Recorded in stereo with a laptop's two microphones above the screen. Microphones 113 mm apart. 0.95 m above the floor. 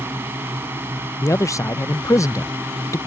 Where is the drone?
20° right (ahead or behind).